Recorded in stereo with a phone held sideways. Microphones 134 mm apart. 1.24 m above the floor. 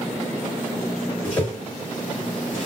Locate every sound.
1.2 s a whoosh: 15° left (ahead or behind), 2 m